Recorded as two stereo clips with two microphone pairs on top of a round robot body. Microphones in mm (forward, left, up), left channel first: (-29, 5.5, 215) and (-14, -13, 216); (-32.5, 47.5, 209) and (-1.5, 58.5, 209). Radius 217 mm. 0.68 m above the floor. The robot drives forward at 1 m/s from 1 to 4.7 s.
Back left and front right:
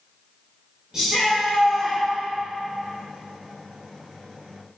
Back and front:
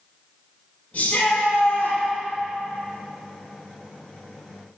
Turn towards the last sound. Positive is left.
turn(degrees=-150)